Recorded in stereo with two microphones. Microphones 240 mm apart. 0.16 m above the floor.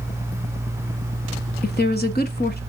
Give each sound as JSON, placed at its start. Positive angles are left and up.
{"t": 1.6, "sound": "a woman speaking", "side_deg": 40, "distance_m": 1.3}